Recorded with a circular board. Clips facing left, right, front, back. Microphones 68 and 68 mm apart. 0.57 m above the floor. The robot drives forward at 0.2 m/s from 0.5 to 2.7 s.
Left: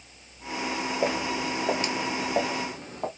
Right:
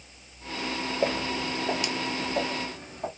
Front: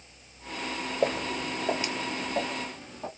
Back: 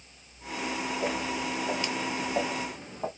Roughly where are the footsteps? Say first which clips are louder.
Even, front 6 dB; ahead.